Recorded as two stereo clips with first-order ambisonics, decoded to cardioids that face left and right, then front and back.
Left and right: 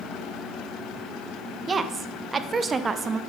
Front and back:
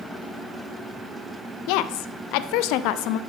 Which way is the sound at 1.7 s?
20° right.